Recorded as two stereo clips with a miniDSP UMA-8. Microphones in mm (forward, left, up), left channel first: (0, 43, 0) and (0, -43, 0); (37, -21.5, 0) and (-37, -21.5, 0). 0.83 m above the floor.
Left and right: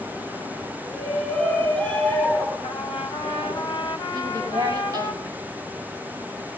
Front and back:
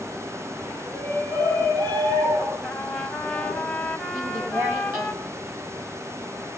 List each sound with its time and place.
0.8 s a shout: 170° left, 10 m; by 3.6 s 165° left, 11 m
2.6 s a trumpet: 85° left, 4.5 m
4.1 s a woman speaking: 135° right, 5.5 m